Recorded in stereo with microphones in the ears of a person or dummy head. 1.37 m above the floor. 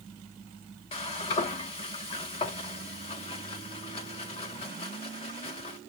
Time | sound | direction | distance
0.9 | frying | 25° left (ahead or behind) | 0.9 m